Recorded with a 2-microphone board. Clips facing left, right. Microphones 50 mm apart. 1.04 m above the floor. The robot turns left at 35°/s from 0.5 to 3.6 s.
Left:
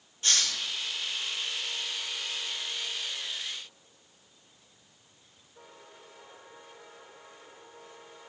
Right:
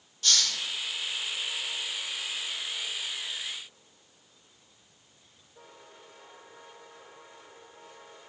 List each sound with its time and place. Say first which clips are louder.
0.2 s a hiss: right 1 dB; 25° left (ahead or behind), 2.0 m